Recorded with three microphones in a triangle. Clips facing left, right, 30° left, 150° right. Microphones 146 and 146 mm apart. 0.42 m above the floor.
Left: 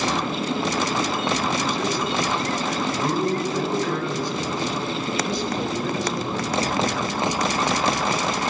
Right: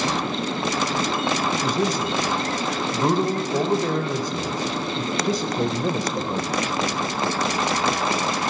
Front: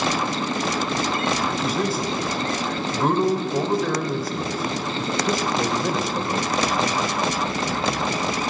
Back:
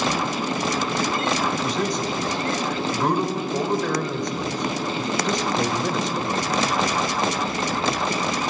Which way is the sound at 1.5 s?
55° right.